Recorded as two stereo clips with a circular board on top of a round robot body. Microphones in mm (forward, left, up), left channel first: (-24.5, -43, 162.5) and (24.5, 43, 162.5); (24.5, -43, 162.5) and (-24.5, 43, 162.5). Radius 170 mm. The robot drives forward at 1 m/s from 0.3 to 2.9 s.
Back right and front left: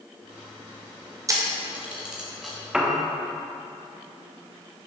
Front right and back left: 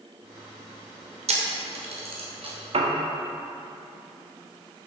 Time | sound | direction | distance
1.3 | a camera shutter | 115° left | 1.2 m
2.7 | a piano | 145° left | 1.1 m